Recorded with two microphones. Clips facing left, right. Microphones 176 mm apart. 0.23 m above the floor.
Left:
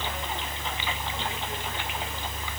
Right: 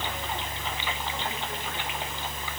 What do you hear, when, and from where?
Only background noise.